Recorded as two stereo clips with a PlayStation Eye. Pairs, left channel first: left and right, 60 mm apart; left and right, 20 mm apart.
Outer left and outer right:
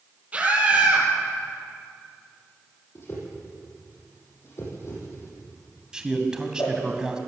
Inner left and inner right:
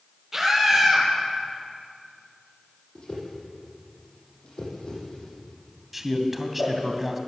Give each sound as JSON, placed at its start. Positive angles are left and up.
{"t": 0.3, "sound": "a scream", "side_deg": -25, "distance_m": 7.0}
{"t": 3.0, "sound": "a whoosh", "side_deg": 45, "distance_m": 7.5}
{"t": 5.9, "sound": "a man speaking", "side_deg": -15, "distance_m": 2.0}